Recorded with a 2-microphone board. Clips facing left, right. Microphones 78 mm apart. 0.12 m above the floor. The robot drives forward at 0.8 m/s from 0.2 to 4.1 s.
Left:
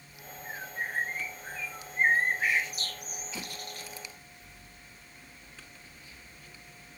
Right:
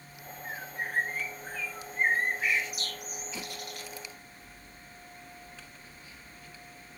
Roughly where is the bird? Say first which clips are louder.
Even; centre.